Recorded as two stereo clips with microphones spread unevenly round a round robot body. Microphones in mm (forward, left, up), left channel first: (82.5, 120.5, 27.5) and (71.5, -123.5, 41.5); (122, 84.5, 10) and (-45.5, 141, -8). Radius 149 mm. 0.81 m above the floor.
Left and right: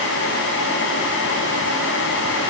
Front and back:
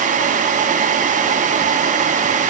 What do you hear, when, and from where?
Only background noise.